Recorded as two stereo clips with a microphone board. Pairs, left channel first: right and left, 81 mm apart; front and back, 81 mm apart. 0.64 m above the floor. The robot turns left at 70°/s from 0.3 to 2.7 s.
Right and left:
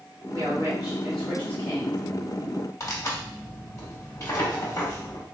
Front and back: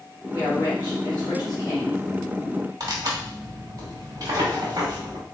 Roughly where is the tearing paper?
Behind right.